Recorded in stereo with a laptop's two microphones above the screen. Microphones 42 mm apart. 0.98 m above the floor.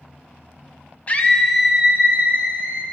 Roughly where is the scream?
Left.